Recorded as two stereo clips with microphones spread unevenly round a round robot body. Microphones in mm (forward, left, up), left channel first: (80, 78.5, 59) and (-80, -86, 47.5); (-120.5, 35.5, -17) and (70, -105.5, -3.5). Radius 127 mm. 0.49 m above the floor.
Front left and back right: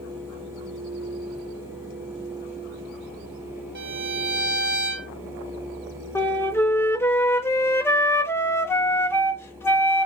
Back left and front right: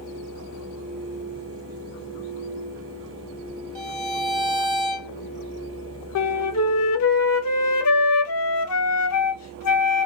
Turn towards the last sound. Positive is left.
turn(degrees=125)